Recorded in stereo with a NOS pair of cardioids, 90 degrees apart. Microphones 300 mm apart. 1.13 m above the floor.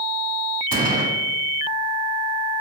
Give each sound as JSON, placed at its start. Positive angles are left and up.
{"t": 0.7, "sound": "a gunshot", "azimuth_deg": -30, "distance_m": 1.4}